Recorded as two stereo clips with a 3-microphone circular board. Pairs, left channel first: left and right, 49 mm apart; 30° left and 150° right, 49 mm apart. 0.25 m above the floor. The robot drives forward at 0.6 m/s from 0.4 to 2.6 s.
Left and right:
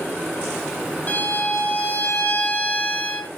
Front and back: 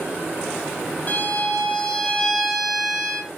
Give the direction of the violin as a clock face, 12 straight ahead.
10 o'clock.